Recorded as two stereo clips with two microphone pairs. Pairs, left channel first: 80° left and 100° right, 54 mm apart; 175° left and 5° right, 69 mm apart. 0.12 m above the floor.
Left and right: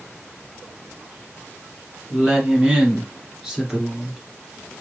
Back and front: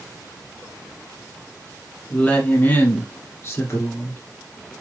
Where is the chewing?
I don't hear chewing.